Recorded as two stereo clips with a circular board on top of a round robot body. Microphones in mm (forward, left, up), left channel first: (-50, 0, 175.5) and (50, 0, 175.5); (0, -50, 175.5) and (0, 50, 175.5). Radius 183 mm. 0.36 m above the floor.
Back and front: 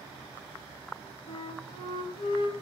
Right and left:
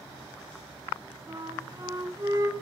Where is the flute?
150° left, 3 m.